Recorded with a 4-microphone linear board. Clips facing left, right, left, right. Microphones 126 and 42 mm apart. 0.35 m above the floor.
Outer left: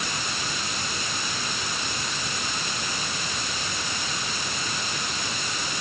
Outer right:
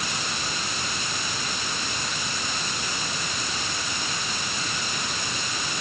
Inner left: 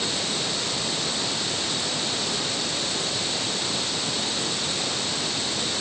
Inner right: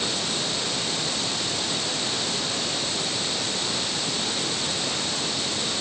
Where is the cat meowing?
No cat meowing in this recording.